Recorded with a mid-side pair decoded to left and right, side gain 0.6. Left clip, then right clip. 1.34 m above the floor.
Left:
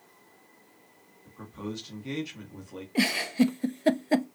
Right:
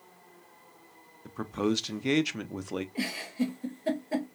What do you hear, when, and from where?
1.2 s a man speaking: 55° right, 0.7 m
3.0 s a giggle: 50° left, 0.6 m